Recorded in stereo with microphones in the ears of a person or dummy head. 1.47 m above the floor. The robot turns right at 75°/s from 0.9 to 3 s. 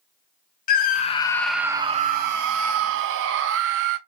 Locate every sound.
0.7 s a scream: 130° left, 0.9 m; by 4.0 s 70° right, 0.9 m